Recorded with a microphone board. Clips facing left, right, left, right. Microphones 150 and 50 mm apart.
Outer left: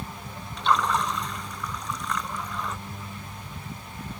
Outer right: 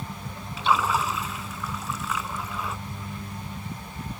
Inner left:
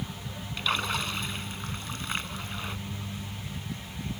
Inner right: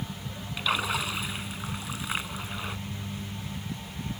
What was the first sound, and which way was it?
A splash, 5° right (ahead or behind).